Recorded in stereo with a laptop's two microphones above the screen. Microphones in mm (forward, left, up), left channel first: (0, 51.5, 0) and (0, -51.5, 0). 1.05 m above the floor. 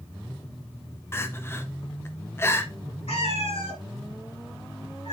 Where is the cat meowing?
70° left (ahead or behind), 2.5 m.